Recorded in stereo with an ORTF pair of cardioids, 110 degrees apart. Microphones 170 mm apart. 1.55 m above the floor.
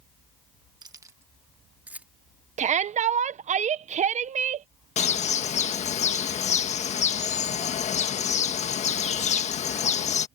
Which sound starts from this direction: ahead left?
A bird, at 5.0 s.